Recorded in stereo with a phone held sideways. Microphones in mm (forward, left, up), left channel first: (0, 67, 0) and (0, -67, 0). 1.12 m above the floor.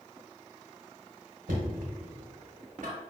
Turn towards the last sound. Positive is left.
turn(degrees=-80)